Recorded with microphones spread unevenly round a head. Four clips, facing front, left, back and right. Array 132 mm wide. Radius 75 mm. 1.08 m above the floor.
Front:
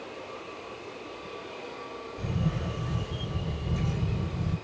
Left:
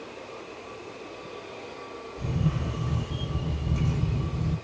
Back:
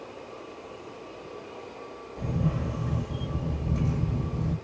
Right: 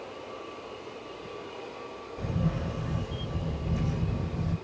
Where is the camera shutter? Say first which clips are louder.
Left 1 dB, back 3 dB; 175° right, 1.6 m.